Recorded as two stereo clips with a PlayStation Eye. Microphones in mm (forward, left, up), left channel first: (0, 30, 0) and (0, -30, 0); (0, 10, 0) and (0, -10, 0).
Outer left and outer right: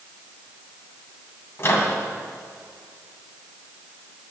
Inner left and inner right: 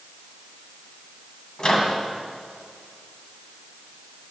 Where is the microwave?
45° left (ahead or behind), 1.8 m.